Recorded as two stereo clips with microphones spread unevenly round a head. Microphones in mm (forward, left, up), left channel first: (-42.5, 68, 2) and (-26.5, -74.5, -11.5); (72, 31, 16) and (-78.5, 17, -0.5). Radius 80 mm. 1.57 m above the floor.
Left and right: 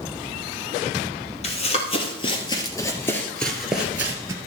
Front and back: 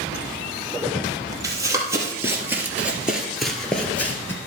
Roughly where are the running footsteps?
Behind left.